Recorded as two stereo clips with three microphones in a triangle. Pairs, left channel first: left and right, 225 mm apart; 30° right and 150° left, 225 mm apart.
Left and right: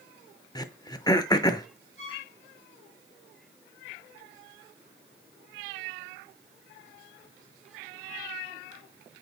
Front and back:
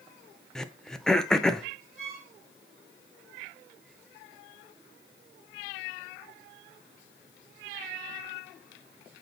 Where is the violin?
65° right, 5.5 m.